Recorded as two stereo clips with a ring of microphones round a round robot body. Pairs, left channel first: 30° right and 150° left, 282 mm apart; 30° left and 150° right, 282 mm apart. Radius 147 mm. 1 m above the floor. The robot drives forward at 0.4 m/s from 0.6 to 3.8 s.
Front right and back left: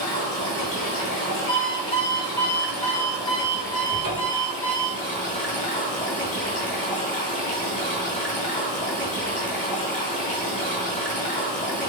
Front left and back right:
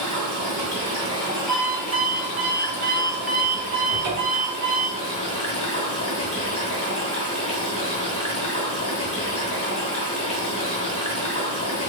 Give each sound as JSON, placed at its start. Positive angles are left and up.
{"t": 0.0, "sound": "running water", "azimuth_deg": 0, "distance_m": 1.7}
{"t": 1.5, "sound": "an alarm clock", "azimuth_deg": -70, "distance_m": 1.4}
{"t": 3.9, "sound": "a cupboard door", "azimuth_deg": -165, "distance_m": 2.0}